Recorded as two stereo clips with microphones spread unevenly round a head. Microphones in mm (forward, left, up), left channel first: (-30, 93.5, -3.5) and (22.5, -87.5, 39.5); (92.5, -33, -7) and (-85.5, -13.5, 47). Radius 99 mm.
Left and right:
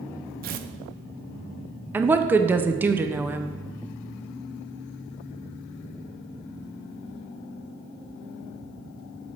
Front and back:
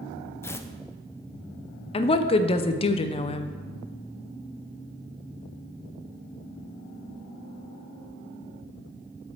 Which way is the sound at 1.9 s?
15° left.